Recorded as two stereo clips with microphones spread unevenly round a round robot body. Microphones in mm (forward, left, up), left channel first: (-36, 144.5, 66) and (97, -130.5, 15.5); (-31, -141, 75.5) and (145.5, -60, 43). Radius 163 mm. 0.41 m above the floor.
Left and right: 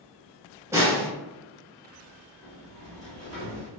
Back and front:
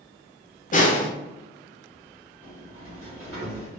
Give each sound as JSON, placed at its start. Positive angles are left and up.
{"t": 0.7, "sound": "a snare drum", "azimuth_deg": -125, "distance_m": 0.7}
{"t": 2.4, "sound": "a sliding door", "azimuth_deg": 20, "distance_m": 1.9}